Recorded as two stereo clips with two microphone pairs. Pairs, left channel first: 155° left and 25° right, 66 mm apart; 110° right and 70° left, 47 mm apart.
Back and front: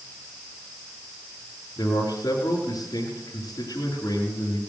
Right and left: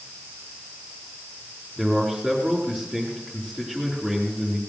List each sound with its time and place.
1.8 s a man speaking: 165° left, 4 m